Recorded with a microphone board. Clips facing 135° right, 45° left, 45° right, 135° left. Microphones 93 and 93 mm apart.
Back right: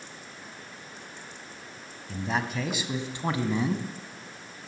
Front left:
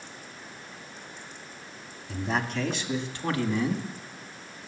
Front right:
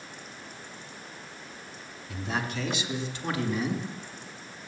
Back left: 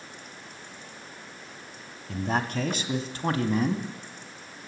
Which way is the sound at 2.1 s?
130° left.